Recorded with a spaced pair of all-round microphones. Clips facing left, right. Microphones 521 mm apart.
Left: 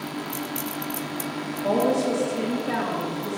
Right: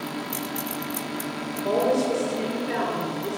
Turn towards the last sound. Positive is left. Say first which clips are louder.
# even
turn(degrees=70)  # may be behind; listen again after turning